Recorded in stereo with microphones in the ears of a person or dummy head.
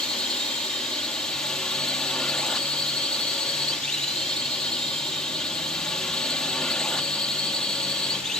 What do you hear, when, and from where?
0.0 s a drone: centre (ahead or behind)